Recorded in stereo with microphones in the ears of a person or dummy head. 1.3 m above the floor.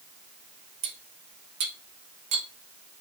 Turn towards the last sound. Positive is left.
turn(degrees=-30)  # may be behind; listen again after turning